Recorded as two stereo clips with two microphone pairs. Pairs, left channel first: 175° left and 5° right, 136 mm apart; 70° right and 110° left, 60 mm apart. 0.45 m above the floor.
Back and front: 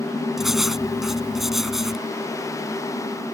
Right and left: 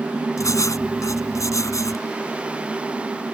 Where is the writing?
90° right.